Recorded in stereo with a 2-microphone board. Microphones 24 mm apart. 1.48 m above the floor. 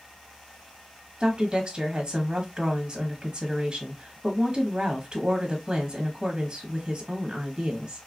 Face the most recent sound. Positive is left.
turn(degrees=-35)  # may be behind; listen again after turning